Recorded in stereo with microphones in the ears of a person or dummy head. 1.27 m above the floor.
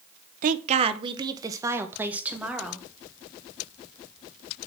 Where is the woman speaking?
45° right (ahead or behind), 0.8 m; by 2.9 s 5° right (ahead or behind), 1.9 m.